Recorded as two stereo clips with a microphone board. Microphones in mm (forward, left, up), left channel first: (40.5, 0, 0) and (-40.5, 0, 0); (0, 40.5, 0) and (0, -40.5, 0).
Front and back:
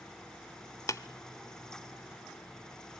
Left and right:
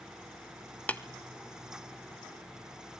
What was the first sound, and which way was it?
Tapping, 25° left.